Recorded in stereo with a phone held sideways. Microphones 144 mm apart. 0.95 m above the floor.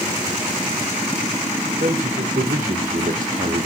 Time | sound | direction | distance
1.8 | a man speaking | 75° right (ahead or behind) | 2.5 m